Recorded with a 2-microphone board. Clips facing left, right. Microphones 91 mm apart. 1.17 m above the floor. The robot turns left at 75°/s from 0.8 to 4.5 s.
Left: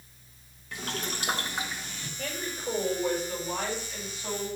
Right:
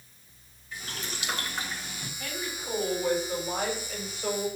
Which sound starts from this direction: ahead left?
A woman speaking, at 2.2 s.